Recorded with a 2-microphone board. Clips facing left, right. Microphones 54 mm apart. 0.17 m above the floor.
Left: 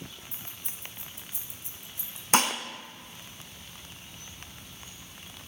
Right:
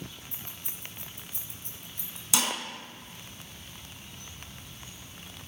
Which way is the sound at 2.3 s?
45° left (ahead or behind).